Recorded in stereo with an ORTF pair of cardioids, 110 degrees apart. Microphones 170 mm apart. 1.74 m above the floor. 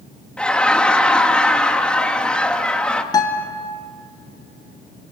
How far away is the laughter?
About 2.5 m.